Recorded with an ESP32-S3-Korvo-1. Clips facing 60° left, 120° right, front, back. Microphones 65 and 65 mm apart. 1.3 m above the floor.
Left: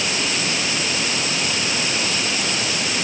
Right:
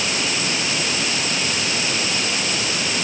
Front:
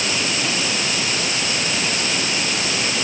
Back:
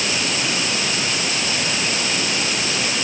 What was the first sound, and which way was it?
Only background noise.